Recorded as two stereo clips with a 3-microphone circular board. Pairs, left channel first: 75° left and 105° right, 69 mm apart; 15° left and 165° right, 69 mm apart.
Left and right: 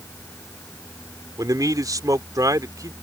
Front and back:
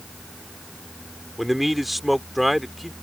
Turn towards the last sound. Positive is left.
turn(degrees=-75)